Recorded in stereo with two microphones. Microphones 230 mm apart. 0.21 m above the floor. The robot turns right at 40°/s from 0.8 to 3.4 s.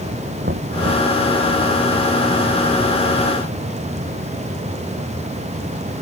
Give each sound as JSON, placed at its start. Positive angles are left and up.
{"t": 0.4, "sound": "knocking", "side_deg": -45}